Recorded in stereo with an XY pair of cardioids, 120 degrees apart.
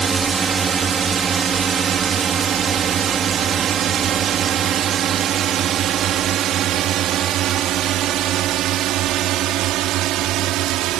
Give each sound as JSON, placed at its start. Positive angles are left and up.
{"t": 0.0, "sound": "a drone", "azimuth_deg": -35}